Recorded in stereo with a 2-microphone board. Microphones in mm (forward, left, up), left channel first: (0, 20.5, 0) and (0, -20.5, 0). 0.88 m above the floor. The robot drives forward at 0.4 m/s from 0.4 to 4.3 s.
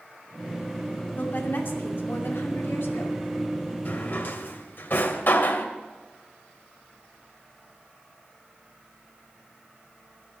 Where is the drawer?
55° left (ahead or behind), 1.9 m; by 5.7 s 60° left (ahead or behind), 1.8 m.